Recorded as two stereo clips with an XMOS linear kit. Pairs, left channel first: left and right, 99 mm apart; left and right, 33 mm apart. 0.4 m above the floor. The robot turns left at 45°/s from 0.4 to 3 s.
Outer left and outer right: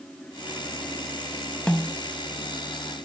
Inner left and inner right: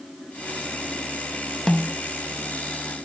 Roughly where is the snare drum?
Centre.